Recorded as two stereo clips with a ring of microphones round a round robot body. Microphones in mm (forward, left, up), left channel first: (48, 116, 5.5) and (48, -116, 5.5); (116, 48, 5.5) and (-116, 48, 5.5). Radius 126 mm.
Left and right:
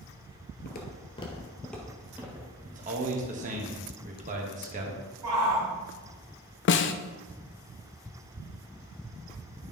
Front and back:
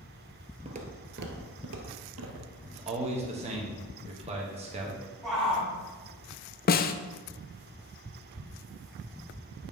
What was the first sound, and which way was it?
Footsteps, 125° left.